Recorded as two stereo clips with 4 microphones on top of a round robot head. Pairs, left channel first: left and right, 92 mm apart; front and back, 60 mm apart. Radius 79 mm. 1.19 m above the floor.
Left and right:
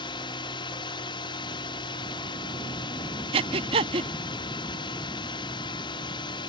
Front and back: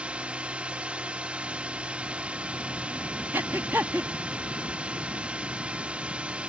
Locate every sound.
0.0 s a drone: 110° left
3.3 s breathing: 110° right